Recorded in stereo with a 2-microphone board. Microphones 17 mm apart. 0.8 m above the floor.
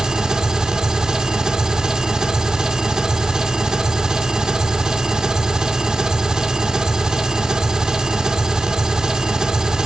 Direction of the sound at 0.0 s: 50° right (ahead or behind).